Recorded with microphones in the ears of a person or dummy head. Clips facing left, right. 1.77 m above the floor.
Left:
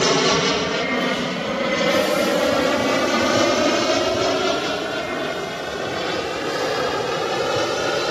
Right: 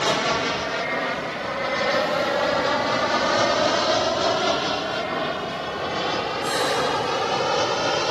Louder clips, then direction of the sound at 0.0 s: Left 5 dB; 50° left (ahead or behind).